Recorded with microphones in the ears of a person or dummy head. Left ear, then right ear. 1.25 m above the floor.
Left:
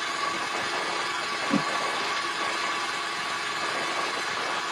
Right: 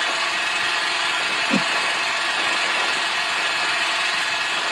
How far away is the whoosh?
About 0.9 m.